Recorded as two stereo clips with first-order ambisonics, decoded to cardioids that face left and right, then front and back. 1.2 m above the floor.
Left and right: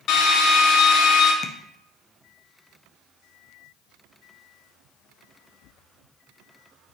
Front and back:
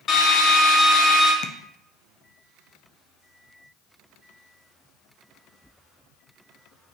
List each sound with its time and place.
0.1 s a drill: 60° left, 1.1 m
1.4 s tapping: 35° left, 0.6 m